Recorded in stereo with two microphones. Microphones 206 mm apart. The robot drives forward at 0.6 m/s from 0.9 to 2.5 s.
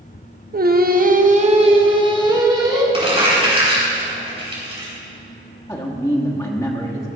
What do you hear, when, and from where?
0.5 s singing: 45° right (ahead or behind), 0.7 m; by 2.8 s 20° right (ahead or behind), 1.4 m
2.9 s crumpling: 30° right (ahead or behind), 4 m
5.7 s a man speaking: 15° left (ahead or behind), 1.2 m